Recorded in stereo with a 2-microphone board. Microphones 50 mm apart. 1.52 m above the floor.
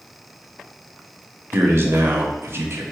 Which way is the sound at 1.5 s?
55° right (ahead or behind).